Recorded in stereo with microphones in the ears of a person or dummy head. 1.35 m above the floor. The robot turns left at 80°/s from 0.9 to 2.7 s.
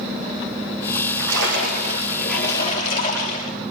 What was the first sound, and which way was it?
A splash, 75° right.